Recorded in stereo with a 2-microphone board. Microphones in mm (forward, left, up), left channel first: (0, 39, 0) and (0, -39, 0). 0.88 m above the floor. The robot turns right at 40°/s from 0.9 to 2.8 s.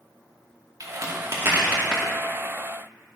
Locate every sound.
0.8 s a crack: 50° right (ahead or behind), 2.5 m; by 2.0 s 10° right (ahead or behind), 2.5 m